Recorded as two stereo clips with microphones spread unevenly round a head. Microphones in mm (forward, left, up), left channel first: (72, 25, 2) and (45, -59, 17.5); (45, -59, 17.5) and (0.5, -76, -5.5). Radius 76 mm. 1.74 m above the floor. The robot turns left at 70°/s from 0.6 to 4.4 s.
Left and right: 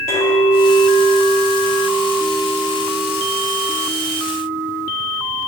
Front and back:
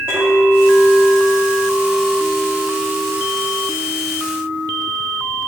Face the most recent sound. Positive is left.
turn(degrees=-145)